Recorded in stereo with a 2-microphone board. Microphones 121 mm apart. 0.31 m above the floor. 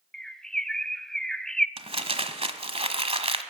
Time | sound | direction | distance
0.1 | a bird | 5° left (ahead or behind) | 0.6 m
1.8 | crumpling | 55° right (ahead or behind) | 1.5 m